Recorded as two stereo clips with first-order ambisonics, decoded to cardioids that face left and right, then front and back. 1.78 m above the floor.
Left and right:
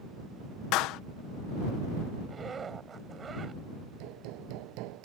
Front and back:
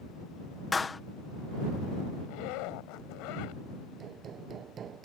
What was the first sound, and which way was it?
A clap, 75° left.